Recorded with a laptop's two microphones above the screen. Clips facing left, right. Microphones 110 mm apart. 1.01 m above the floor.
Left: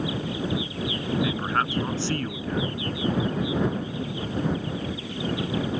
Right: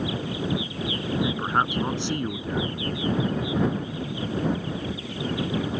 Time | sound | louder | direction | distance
1.2 | a man speaking | right 3 dB | 20° right (ahead or behind) | ?